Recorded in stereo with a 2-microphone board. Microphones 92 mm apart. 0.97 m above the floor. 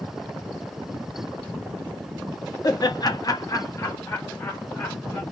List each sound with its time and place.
2.6 s laughter: 40° left (ahead or behind), 0.7 m; by 5.2 s 20° left (ahead or behind), 1.5 m